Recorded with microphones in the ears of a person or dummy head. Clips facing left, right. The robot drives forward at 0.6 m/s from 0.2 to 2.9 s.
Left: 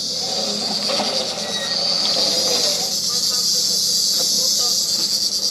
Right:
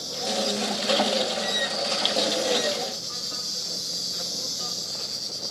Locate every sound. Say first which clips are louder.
0.0 s an insect: even; 35° left (ahead or behind), 2.5 m; by 5.5 s 70° left (ahead or behind), 1.5 m